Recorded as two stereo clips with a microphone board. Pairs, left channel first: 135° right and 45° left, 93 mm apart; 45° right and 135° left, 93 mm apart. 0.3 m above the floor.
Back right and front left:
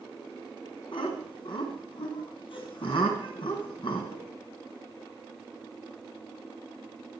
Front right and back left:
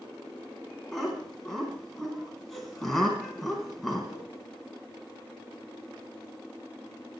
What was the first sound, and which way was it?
Laughter, 130° right.